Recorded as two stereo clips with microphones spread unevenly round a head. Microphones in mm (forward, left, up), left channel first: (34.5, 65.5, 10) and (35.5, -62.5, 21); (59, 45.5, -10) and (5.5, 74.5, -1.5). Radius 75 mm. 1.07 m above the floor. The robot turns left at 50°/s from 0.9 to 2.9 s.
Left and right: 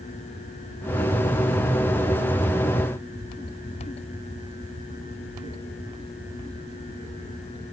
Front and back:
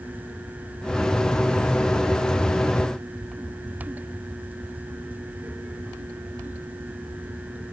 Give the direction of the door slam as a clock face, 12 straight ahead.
I don't hear a door slam.